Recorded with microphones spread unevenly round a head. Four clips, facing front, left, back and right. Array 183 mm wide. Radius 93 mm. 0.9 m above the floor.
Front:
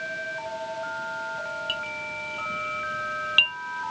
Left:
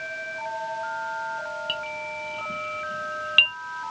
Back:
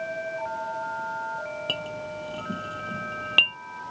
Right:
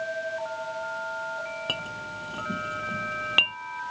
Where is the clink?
140° right.